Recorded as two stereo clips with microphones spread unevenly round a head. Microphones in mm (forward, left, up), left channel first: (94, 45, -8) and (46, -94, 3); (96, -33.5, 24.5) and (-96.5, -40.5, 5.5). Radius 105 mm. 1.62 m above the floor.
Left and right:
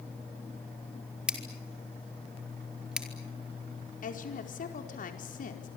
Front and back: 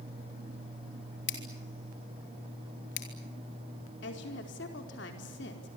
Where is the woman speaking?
45° left, 4.5 m.